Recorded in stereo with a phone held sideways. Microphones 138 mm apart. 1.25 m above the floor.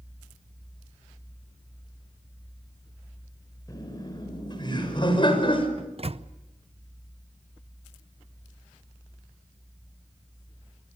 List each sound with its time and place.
3.7 s laughter: 30° left (ahead or behind), 6 m; by 5.7 s 40° left (ahead or behind), 5.5 m
5.8 s a microwave: 45° right (ahead or behind), 0.6 m